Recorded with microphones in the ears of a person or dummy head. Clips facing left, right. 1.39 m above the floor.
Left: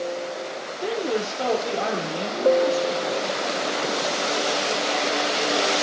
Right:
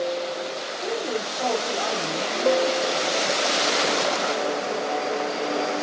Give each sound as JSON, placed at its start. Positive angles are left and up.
{"t": 0.8, "sound": "a woman speaking", "side_deg": 30, "distance_m": 3.0}